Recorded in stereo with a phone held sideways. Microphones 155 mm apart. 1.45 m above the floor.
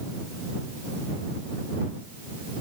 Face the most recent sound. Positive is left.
No sound to turn to.